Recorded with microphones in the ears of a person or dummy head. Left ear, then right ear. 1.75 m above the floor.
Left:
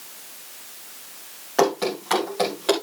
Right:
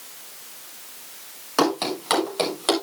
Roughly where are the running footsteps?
Right.